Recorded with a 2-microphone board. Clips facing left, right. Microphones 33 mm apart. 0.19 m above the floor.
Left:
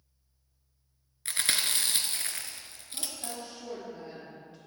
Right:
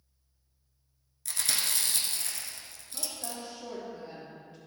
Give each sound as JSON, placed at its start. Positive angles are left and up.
{"t": 1.2, "sound": "chewing", "side_deg": 40, "distance_m": 1.0}
{"t": 2.9, "sound": "a woman speaking", "side_deg": 10, "distance_m": 3.0}